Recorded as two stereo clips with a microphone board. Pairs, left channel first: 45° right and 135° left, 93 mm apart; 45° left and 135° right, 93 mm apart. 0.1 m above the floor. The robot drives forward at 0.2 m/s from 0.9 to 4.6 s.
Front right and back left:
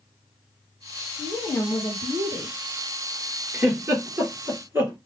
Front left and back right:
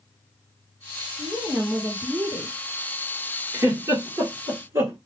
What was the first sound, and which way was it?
A woman speaking, 90° right.